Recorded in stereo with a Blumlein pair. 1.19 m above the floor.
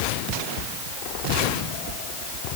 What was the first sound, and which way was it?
Only background noise.